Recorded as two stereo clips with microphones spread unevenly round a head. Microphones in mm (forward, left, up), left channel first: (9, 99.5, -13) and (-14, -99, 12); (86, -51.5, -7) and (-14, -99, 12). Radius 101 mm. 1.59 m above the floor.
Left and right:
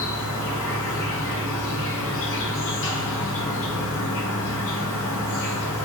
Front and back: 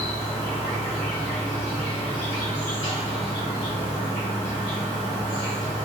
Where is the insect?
95° left, 0.8 m.